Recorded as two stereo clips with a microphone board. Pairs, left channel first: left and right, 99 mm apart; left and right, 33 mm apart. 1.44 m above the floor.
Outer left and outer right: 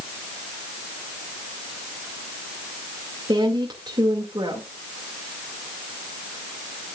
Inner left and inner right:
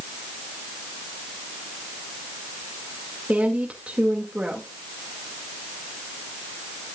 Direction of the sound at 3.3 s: 45° right (ahead or behind).